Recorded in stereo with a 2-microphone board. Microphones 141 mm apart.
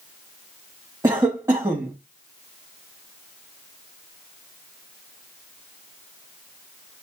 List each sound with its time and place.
1.0 s a cough: 25° right (ahead or behind), 0.9 m